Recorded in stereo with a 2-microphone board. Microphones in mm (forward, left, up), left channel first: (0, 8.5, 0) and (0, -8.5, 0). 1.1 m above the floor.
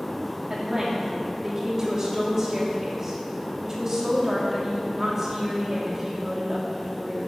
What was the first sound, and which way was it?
A woman speaking, 25° right (ahead or behind).